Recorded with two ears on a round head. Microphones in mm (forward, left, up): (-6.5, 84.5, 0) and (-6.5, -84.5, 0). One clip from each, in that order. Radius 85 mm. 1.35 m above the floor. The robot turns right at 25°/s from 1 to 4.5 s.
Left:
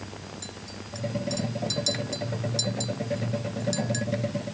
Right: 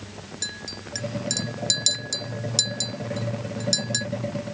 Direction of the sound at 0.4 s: 60° right (ahead or behind).